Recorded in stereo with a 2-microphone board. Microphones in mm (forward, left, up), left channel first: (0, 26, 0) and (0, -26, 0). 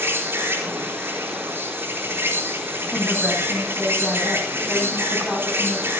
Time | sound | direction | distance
0.0 | an insect | 50° right (ahead or behind) | 4.5 m
2.9 | a woman speaking | centre (ahead or behind) | 8 m